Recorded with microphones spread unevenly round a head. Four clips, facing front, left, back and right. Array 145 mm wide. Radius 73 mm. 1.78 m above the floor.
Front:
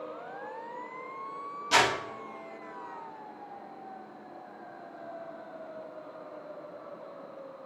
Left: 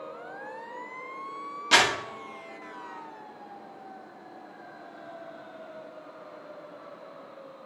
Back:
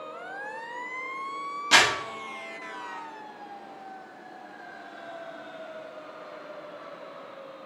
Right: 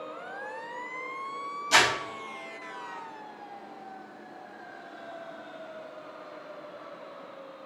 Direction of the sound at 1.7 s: 135° left.